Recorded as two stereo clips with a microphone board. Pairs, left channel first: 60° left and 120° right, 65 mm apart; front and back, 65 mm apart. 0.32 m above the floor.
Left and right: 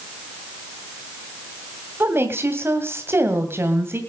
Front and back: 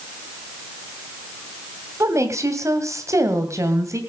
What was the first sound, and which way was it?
A woman speaking, 165° right.